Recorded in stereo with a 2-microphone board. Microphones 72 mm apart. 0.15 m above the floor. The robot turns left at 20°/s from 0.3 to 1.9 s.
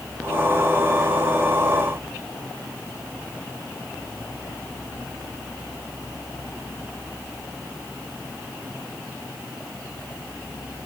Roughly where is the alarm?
No alarm in this recording.